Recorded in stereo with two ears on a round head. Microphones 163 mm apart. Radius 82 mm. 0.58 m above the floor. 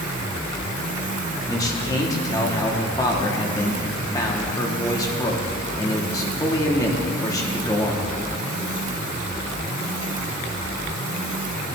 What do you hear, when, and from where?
1.5 s a man speaking: 20° left (ahead or behind), 1.2 m